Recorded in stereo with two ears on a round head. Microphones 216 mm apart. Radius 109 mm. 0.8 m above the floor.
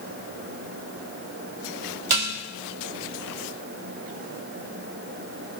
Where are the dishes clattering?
70° right (ahead or behind), 1.8 m.